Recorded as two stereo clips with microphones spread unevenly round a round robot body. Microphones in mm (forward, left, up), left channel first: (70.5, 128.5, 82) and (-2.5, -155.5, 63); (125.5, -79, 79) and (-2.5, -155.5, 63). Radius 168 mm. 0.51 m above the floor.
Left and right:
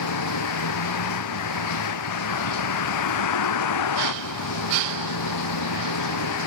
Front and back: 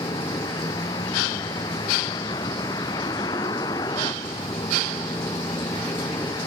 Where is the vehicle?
110° left.